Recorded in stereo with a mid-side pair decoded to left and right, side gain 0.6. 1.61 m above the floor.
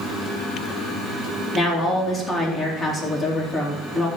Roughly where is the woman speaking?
Ahead left.